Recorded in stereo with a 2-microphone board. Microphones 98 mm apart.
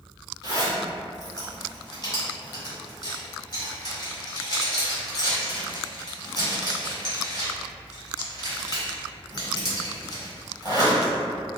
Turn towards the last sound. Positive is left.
turn(degrees=45)  # may be behind; listen again after turning